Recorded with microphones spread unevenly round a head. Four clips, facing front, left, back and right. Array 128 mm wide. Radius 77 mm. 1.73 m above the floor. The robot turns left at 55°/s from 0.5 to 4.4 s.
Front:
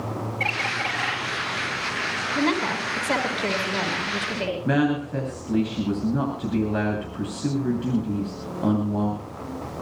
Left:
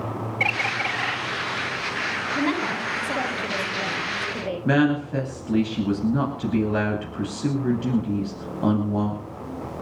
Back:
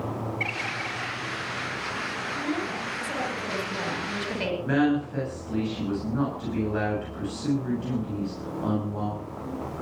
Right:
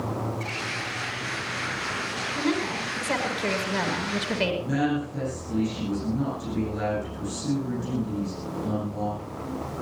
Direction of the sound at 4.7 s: 60° left.